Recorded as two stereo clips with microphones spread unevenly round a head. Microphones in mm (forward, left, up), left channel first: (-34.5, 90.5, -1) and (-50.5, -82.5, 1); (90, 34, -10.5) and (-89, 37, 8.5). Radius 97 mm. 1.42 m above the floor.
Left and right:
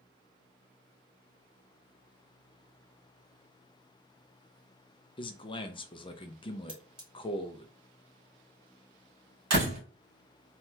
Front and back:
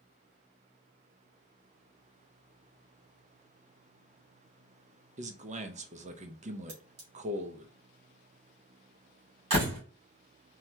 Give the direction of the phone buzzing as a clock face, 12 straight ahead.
No phone buzzing in this recording.